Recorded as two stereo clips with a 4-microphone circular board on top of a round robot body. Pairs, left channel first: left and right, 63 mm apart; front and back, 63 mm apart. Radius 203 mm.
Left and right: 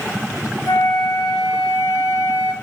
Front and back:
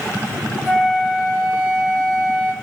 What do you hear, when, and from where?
0.7 s a flute: 85° left, 1.8 m